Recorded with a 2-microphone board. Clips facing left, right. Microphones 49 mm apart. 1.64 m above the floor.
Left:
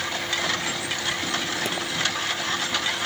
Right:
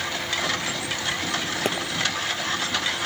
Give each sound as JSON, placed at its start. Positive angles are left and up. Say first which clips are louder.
{"t": 1.6, "sound": "a pop", "louder": "right 3 dB", "side_deg": -40, "distance_m": 0.7}